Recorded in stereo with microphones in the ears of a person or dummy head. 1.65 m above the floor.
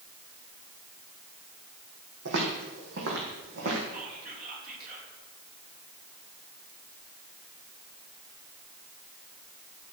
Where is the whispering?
50° right (ahead or behind), 2.5 m.